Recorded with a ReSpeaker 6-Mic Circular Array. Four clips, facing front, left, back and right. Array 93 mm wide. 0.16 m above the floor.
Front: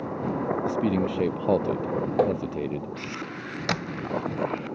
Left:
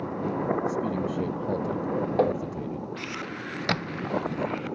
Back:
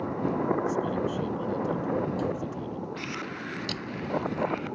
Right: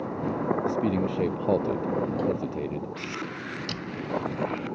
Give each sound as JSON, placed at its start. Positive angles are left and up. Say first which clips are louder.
{"t": 0.7, "sound": "a man speaking", "louder": "right 2 dB, front 3 dB", "azimuth_deg": -30}
{"t": 2.2, "sound": "tapping", "louder": "left 6 dB, front 8 dB", "azimuth_deg": 40}
{"t": 3.7, "sound": "a squeak", "louder": "left 4 dB, front 3 dB", "azimuth_deg": 50}